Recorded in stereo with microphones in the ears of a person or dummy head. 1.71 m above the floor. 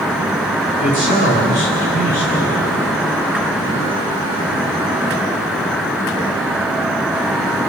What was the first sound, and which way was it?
A man speaking, 45° left (ahead or behind).